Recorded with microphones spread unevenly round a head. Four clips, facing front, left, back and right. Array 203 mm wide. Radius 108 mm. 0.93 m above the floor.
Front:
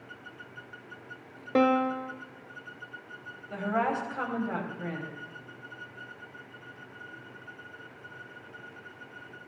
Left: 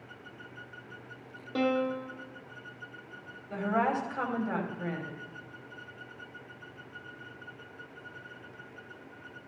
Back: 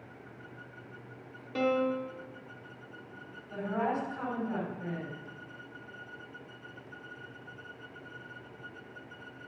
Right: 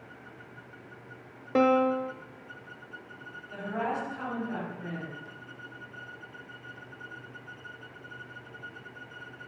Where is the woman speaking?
45° left, 4.5 m.